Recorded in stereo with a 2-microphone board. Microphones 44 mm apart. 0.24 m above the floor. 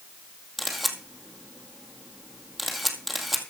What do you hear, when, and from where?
0.6 s a camera shutter: centre (ahead or behind), 2 m